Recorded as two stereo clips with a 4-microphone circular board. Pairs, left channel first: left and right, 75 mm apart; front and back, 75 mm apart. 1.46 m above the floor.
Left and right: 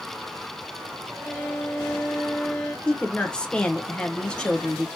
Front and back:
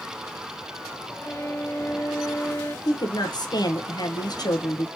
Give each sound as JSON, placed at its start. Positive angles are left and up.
{"t": 1.2, "sound": "a violin", "azimuth_deg": 5, "distance_m": 0.9}
{"t": 2.9, "sound": "a woman speaking", "azimuth_deg": 15, "distance_m": 0.8}